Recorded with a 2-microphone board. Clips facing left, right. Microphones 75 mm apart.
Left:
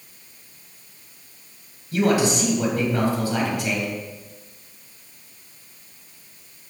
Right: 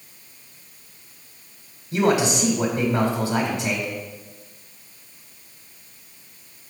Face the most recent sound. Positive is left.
turn(degrees=-25)  # may be behind; listen again after turning